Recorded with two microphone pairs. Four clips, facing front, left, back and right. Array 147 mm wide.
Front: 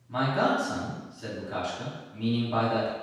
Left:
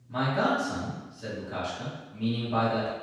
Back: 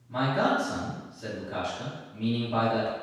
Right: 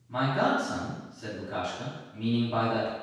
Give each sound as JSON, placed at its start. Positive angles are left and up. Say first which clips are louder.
{"t": 0.1, "sound": "a man speaking", "louder": "even, even", "azimuth_deg": -10, "distance_m": 1.7}